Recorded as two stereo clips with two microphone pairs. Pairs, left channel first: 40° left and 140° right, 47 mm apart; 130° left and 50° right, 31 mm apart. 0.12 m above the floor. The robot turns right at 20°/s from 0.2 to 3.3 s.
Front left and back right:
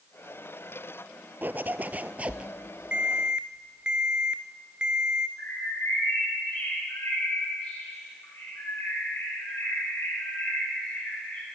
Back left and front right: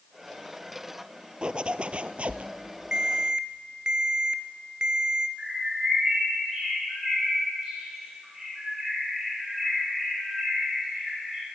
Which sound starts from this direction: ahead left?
A bird, at 5.4 s.